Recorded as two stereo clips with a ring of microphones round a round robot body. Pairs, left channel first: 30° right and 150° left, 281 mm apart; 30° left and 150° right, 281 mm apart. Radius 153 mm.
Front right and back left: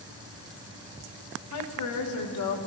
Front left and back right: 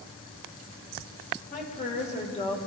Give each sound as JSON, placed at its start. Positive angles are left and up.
{"t": 1.5, "sound": "a woman speaking", "azimuth_deg": -30, "distance_m": 2.5}